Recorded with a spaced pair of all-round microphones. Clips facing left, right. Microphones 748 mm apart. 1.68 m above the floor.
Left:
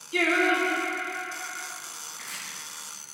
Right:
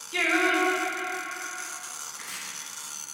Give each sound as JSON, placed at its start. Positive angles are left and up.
{"t": 0.1, "sound": "singing", "side_deg": -30, "distance_m": 1.3}
{"t": 2.1, "sound": "chopping", "side_deg": -30, "distance_m": 4.0}